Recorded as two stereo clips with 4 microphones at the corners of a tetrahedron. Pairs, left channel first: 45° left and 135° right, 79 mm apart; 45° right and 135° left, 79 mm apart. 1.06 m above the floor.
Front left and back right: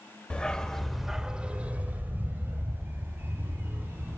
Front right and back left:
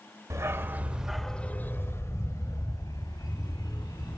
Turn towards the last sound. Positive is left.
turn(degrees=-75)